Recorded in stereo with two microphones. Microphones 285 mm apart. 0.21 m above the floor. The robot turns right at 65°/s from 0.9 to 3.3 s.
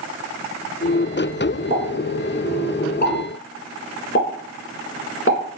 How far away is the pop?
About 1.4 m.